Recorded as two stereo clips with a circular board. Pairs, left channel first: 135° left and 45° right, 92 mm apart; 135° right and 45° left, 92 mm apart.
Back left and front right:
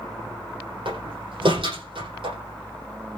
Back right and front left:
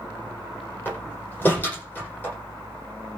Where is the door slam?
65° right, 9.5 m.